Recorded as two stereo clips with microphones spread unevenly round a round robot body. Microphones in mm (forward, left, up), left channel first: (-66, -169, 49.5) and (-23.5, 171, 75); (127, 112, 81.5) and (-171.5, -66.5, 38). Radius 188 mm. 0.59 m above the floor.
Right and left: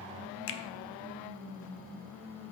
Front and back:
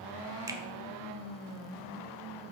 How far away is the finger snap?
About 0.7 m.